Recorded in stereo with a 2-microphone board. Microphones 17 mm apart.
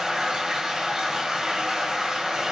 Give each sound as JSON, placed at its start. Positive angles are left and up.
{"t": 0.0, "sound": "running water", "side_deg": -45, "distance_m": 1.9}